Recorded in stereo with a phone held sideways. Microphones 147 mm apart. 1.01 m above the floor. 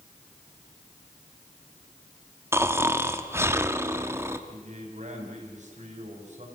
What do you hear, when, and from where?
2.5 s snoring: 15° right (ahead or behind), 0.9 m
4.5 s a man speaking: 50° right (ahead or behind), 6 m